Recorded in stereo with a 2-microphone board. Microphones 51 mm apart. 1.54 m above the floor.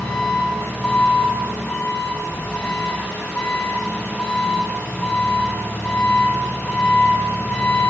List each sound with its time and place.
0.0 s an engine running: 30° left (ahead or behind), 3.5 m